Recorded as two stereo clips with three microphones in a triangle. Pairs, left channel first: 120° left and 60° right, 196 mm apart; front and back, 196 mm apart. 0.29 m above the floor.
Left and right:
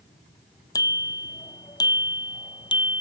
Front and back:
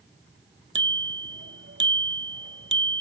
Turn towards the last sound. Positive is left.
turn(degrees=-175)